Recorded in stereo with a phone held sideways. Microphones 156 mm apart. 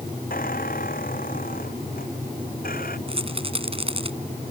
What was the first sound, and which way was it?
A squeak, 65° left (ahead or behind).